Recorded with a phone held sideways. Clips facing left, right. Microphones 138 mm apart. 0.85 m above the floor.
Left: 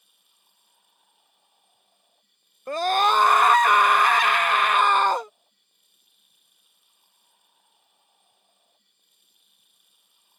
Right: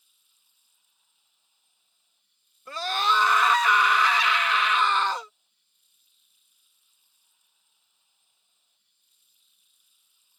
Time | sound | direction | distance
0.0 | running water | 70° left (ahead or behind) | ?
2.7 | a scream | 55° left (ahead or behind) | ?